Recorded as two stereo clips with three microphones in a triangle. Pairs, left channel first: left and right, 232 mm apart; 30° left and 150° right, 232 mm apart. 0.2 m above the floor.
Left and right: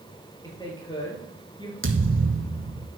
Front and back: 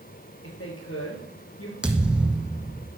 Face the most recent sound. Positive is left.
turn(degrees=-65)